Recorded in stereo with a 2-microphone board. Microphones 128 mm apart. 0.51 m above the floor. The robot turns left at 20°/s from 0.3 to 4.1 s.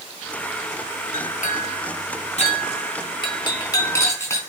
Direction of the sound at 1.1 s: 80° left.